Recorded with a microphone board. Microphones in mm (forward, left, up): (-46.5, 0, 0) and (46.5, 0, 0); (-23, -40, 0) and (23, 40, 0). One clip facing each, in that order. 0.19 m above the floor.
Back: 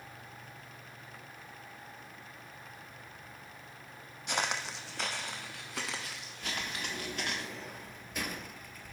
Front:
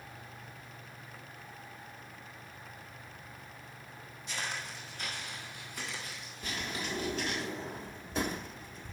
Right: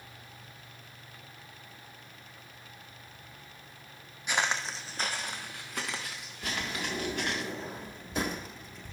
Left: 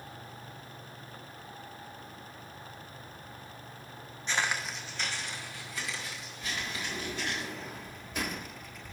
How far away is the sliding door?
About 0.6 m.